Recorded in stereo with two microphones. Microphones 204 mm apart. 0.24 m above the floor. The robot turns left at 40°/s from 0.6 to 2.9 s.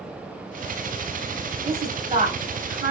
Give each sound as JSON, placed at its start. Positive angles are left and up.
{"t": 1.6, "sound": "a woman speaking", "side_deg": -25, "distance_m": 1.1}